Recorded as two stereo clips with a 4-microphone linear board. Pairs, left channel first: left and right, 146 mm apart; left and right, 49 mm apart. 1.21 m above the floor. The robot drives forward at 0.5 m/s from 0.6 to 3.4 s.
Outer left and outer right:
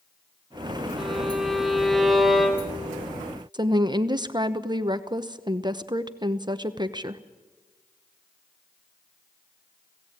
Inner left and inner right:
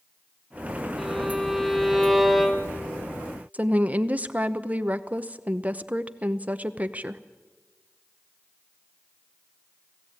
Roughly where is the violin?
Centre.